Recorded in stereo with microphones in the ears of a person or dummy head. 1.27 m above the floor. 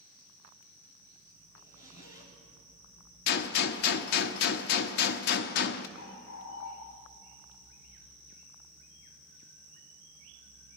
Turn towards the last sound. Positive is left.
turn(degrees=75)  # may be behind; listen again after turning